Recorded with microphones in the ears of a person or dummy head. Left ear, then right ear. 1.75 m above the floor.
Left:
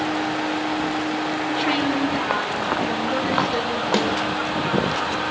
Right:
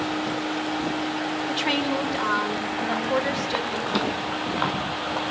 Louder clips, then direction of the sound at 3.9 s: Left 5 dB; 45° left (ahead or behind).